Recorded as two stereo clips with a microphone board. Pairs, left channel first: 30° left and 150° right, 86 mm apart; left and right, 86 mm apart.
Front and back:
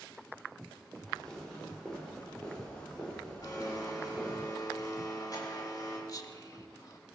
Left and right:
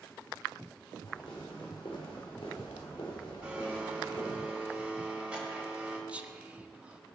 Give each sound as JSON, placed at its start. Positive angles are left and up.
{"t": 1.1, "sound": "footsteps", "azimuth_deg": 115, "distance_m": 5.5}
{"t": 3.4, "sound": "a blender", "azimuth_deg": -10, "distance_m": 3.5}
{"t": 6.1, "sound": "whispering", "azimuth_deg": -15, "distance_m": 1.4}